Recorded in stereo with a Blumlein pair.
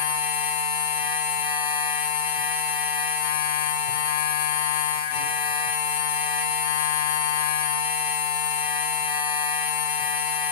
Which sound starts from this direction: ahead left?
A machine running, at 0.0 s.